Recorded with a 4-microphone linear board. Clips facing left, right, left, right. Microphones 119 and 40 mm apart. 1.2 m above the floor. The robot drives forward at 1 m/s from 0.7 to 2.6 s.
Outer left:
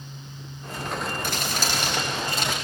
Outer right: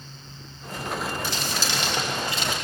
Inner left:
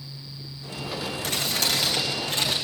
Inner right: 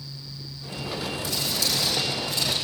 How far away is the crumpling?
About 4.5 m.